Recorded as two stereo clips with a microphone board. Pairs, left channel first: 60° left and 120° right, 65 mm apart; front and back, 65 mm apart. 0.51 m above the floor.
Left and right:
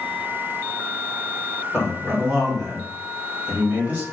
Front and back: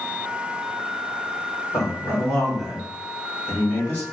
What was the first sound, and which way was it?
A man speaking, 15° right.